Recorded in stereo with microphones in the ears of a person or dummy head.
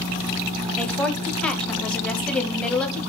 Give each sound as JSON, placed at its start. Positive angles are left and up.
{"t": 0.8, "sound": "a woman speaking", "side_deg": 5, "distance_m": 0.9}